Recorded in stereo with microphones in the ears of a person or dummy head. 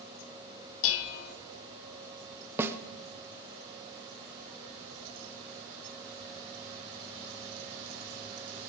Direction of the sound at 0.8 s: 80° left.